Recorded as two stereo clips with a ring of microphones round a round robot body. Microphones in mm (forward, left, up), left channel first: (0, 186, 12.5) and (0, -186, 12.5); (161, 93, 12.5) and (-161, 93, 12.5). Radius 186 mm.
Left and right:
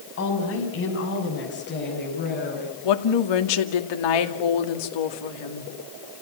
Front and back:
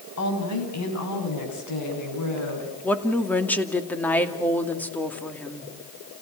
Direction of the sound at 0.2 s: 35° left.